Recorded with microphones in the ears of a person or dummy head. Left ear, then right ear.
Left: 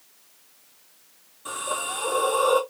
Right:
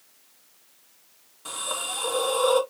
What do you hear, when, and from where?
1.4 s a hiss: 20° right (ahead or behind), 3 m